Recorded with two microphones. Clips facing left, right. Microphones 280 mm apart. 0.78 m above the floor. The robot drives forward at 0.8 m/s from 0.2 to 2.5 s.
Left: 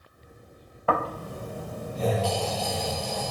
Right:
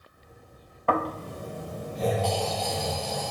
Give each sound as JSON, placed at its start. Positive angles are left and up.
{"t": 0.9, "sound": "snoring", "side_deg": 5, "distance_m": 1.0}